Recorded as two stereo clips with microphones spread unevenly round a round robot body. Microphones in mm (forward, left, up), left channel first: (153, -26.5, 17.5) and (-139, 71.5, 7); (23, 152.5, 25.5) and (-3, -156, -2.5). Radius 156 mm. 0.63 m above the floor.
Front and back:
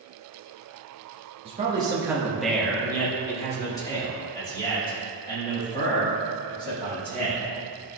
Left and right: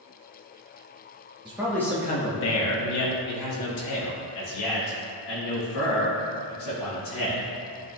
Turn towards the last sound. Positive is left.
turn(degrees=55)